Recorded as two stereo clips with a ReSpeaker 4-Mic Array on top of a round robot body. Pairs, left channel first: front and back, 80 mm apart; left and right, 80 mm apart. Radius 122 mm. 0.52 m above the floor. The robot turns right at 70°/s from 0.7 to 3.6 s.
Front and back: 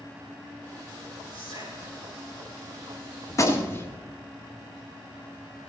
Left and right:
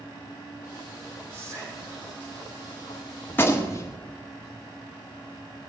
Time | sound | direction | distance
1.3 | whispering | 150° right | 5 m
3.3 | a gunshot | 30° left | 1.8 m